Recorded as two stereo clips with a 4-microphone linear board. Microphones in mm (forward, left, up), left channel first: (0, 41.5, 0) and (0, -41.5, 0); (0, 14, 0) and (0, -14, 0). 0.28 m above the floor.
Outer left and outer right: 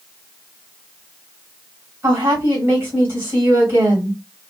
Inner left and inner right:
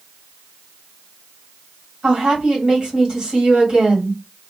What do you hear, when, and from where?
2.0 s a woman speaking: 30° right (ahead or behind), 1.7 m